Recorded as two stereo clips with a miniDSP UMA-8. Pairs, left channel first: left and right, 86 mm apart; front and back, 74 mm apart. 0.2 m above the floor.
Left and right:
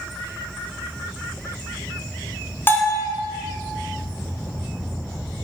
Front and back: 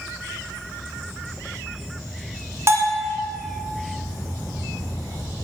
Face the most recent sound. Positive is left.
turn(degrees=145)